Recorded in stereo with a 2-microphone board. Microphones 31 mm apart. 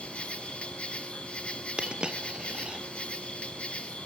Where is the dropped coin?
30° right (ahead or behind), 1.3 m.